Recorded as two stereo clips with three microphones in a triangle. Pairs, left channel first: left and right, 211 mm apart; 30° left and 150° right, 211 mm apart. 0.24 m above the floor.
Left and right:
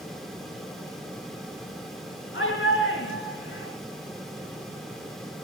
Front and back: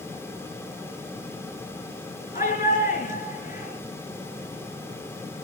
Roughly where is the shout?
Left.